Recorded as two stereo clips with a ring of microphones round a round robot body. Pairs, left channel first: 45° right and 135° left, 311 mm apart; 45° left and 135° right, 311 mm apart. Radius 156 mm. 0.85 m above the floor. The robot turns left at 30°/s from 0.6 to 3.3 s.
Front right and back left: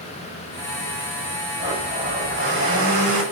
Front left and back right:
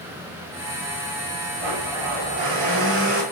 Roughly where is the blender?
Behind right.